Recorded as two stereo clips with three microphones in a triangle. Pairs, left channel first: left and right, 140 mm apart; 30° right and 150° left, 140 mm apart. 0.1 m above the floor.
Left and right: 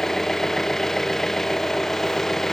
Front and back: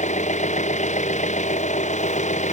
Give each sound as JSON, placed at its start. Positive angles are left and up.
{"t": 0.0, "sound": "an engine running", "azimuth_deg": 5}